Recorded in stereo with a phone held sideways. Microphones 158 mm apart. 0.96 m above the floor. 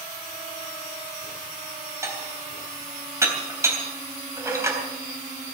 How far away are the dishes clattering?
About 3.5 m.